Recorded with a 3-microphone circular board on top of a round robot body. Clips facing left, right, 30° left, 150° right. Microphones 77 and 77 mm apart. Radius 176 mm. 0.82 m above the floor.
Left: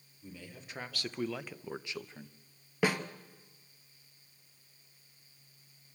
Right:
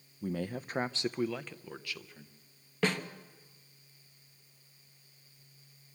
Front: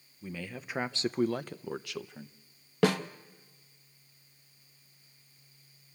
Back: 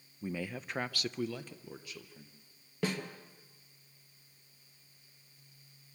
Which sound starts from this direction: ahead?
A snare drum, at 2.8 s.